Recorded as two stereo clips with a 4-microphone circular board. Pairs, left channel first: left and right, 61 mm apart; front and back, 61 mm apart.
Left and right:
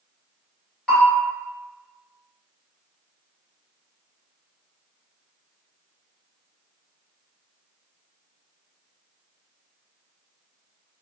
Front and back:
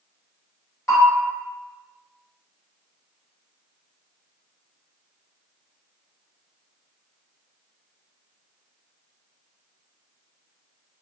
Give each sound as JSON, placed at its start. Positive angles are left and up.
{"t": 0.9, "sound": "a bell", "azimuth_deg": 20, "distance_m": 1.6}